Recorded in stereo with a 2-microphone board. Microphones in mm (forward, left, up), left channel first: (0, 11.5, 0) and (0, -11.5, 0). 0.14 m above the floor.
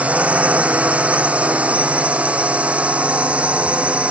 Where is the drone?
80° right; by 4.1 s 65° right (ahead or behind).